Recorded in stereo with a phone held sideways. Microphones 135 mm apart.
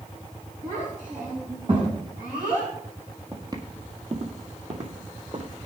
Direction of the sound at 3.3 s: 25° right (ahead or behind).